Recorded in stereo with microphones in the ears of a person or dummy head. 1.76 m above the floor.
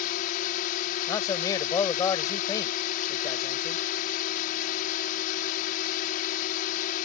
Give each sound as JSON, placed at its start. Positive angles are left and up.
{"t": 0.0, "sound": "a drone", "side_deg": 50}
{"t": 1.1, "sound": "a man speaking", "side_deg": 20}